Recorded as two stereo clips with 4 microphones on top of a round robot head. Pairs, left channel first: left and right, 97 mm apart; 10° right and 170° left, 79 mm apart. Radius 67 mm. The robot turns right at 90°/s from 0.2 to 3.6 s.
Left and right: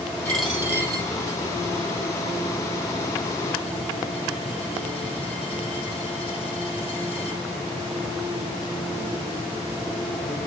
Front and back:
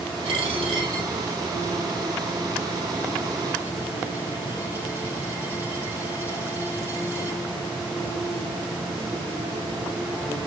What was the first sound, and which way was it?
A dropped coin, 165° left.